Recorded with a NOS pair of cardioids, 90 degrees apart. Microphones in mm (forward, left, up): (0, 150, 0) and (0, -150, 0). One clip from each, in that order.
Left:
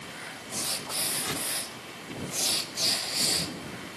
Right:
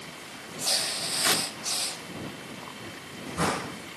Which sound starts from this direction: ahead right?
Tearing paper, at 1.2 s.